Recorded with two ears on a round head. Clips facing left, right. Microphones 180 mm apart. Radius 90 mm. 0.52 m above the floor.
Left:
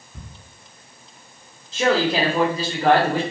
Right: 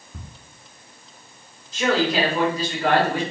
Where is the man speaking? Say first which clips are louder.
Left 1 dB; 25° left (ahead or behind), 1.1 m.